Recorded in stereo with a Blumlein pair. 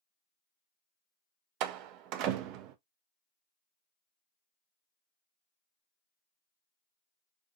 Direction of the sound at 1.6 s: 40° right.